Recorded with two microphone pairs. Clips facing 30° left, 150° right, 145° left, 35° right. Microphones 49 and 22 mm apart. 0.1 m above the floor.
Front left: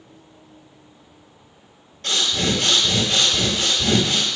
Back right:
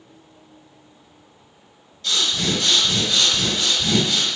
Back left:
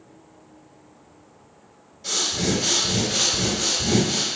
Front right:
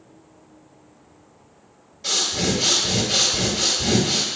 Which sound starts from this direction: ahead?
Breathing, at 2.0 s.